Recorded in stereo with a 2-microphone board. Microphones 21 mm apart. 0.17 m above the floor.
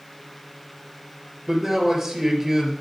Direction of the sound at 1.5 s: 15° right (ahead or behind).